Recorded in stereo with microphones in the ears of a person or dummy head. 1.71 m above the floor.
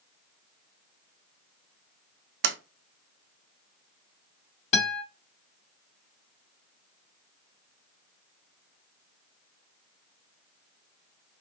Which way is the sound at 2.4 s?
60° right (ahead or behind).